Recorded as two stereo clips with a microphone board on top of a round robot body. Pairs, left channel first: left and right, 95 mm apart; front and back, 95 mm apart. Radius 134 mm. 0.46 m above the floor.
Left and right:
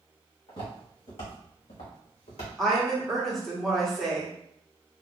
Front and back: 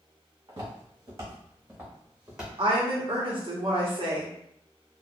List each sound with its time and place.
0.5 s footsteps: 130° left, 2.0 m; by 2.5 s 95° left, 1.5 m
2.6 s a woman speaking: straight behind, 1.2 m